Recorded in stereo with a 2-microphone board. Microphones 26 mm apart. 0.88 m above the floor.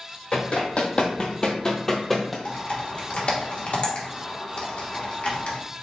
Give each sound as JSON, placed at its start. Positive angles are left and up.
{"t": 0.3, "sound": "running footsteps", "side_deg": 50, "distance_m": 1.6}
{"t": 2.5, "sound": "typing on a keyboard", "side_deg": 50, "distance_m": 1.1}